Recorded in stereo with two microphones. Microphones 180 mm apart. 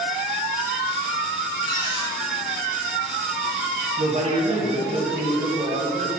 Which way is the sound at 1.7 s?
25° left (ahead or behind).